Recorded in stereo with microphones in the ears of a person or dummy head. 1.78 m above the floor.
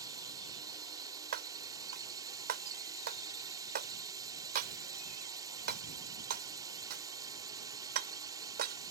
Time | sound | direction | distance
0.0 | a drone | 15° right (ahead or behind) | ?
1.3 | breaking glass | 55° right (ahead or behind) | ?